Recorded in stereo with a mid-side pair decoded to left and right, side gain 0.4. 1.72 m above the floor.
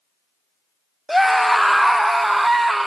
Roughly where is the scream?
Ahead.